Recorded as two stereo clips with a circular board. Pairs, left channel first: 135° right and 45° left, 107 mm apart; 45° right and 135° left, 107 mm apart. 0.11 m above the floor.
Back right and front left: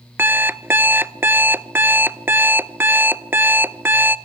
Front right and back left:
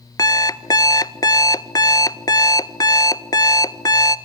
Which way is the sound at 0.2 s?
15° right.